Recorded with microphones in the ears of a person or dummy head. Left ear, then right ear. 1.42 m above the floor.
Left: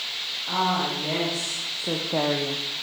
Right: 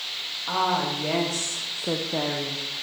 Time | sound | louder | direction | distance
0.5 | a woman speaking | right 1 dB | 80° right | 2.5 m